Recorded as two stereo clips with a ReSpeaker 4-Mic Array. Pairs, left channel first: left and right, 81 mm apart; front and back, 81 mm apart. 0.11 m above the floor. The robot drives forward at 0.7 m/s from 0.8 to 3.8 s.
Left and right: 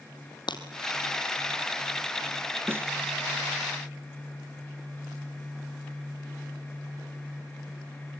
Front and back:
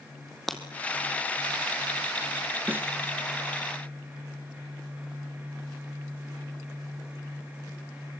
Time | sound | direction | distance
0.5 | breaking glass | 85° left | 2.5 m
2.7 | a snare drum | 125° right | 1.0 m